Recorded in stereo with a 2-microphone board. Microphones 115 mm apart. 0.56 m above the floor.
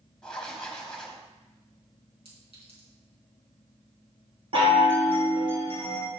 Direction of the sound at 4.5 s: 55° right (ahead or behind).